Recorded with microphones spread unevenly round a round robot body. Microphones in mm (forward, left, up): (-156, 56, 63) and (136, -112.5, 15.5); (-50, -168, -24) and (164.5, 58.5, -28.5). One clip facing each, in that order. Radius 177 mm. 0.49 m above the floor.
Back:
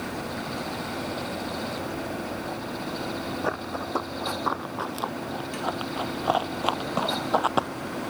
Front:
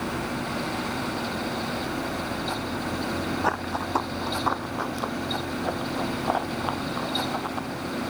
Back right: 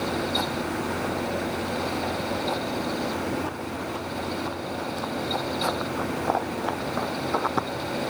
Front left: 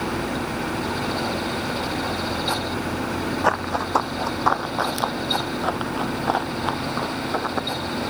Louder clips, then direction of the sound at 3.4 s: Front 1 dB, front left 5 dB; 50° left.